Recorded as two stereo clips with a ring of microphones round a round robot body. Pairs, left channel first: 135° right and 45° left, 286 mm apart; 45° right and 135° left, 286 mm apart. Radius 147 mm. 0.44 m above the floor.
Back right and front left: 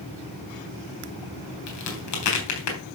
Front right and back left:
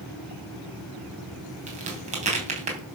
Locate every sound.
1.7 s a crack: 160° right, 3.5 m